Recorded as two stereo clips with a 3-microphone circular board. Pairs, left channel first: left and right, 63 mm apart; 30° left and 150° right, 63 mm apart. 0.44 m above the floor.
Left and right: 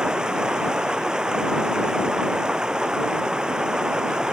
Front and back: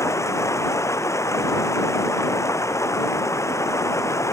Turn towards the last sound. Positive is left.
turn(degrees=-10)